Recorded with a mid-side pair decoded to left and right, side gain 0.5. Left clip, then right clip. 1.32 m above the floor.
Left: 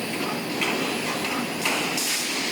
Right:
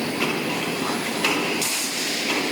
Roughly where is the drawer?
I don't hear a drawer.